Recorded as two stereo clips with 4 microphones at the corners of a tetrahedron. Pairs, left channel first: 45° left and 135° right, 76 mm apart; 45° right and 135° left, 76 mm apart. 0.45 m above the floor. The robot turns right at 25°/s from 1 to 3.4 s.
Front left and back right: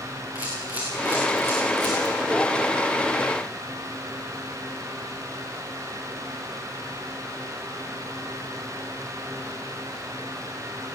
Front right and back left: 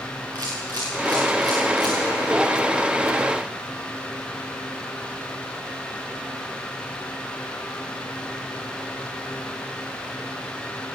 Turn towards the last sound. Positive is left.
turn(degrees=145)